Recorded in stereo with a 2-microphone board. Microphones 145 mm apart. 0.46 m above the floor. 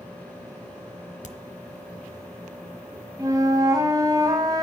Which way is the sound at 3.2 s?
25° right (ahead or behind).